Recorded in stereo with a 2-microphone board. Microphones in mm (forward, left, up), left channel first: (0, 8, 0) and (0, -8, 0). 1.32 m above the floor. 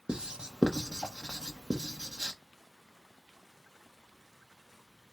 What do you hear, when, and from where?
0.1 s writing: 70° right (ahead or behind), 0.8 m